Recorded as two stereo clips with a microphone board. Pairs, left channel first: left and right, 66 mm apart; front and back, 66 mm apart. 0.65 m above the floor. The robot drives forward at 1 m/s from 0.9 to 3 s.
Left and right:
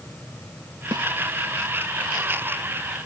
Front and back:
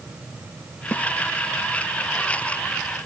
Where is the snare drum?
70° right.